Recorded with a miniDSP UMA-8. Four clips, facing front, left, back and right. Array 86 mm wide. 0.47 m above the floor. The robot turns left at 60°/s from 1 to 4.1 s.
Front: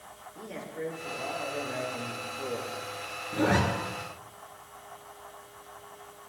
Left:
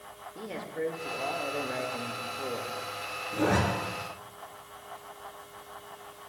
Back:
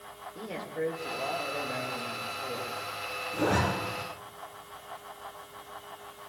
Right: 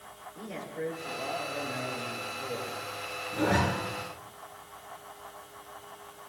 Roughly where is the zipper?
Ahead.